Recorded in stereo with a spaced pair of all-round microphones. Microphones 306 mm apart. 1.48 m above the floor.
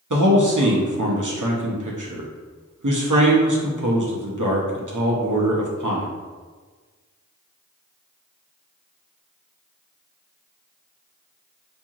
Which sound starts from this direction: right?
A man speaking, at 0.1 s.